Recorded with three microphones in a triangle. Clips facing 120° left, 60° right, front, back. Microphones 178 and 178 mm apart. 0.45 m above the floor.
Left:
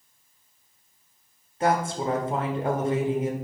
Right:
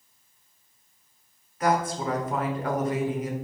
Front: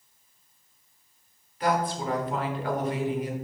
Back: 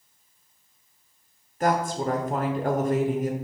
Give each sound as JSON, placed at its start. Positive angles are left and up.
{"t": 1.6, "sound": "a woman speaking", "azimuth_deg": 170, "distance_m": 1.0}